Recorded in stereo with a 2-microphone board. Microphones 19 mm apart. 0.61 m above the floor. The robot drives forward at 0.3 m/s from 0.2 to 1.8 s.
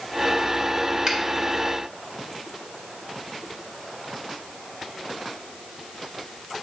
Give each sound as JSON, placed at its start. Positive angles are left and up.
{"t": 1.1, "sound": "a finger snap", "side_deg": -40, "distance_m": 1.6}